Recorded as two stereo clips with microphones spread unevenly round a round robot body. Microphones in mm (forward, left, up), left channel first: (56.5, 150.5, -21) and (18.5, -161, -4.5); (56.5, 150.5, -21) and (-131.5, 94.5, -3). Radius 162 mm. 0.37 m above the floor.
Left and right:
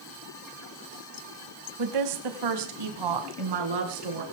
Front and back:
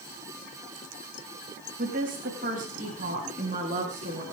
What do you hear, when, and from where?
1.8 s a woman speaking: 100° right, 3 m; by 4.2 s 95° right, 5.5 m